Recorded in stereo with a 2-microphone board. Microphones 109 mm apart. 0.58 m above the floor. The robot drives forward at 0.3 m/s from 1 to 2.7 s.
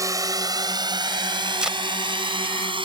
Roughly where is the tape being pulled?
Centre.